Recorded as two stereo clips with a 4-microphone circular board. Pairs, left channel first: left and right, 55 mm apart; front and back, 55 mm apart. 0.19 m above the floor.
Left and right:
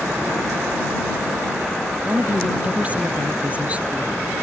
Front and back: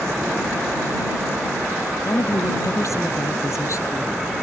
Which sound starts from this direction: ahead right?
A woman speaking, at 2.0 s.